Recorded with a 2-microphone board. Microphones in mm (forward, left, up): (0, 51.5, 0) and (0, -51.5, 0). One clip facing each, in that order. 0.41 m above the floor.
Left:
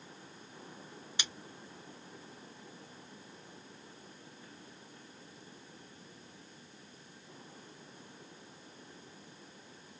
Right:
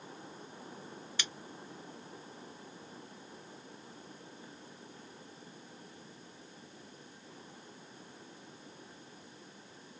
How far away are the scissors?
About 1.1 m.